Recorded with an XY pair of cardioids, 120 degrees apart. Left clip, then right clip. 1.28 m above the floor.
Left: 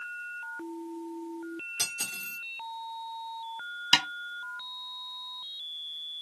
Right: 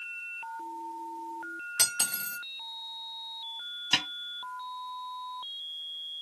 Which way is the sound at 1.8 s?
60° right.